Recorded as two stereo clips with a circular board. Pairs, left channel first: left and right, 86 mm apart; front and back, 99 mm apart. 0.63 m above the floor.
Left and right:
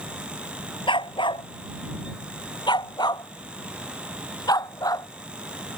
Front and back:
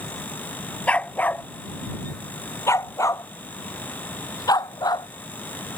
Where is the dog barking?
75° left; by 5.1 s 45° left.